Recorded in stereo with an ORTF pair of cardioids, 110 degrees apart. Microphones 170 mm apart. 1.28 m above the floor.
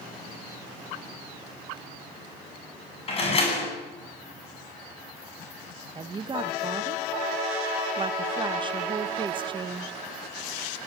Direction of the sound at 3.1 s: 35° left.